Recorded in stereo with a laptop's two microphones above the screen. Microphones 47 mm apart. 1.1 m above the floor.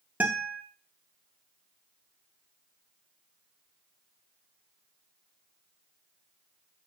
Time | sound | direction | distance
0.2 | a guitar | 35° right (ahead or behind) | 1.1 m